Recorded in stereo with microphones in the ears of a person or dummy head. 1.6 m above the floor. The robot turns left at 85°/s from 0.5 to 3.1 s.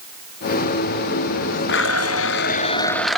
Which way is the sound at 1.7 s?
125° left.